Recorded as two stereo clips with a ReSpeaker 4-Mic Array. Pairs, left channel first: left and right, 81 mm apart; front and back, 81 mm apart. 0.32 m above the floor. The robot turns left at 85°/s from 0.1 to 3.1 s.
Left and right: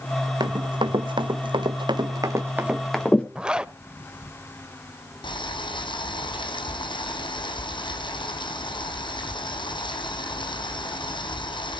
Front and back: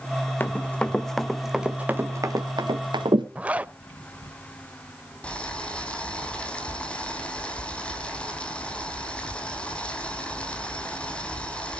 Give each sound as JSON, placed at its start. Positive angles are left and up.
{"t": 0.4, "sound": "running footsteps", "azimuth_deg": -65, "distance_m": 1.2}
{"t": 3.4, "sound": "a zipper", "azimuth_deg": -145, "distance_m": 0.5}
{"t": 5.2, "sound": "boiling", "azimuth_deg": 75, "distance_m": 2.5}